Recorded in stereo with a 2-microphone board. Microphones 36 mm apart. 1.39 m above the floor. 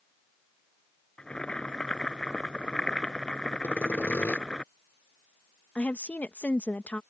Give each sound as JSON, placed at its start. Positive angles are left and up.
{"t": 1.2, "sound": "boiling", "side_deg": 25}
{"t": 3.6, "sound": "sawing", "side_deg": 85}
{"t": 5.8, "sound": "a woman speaking", "side_deg": 45}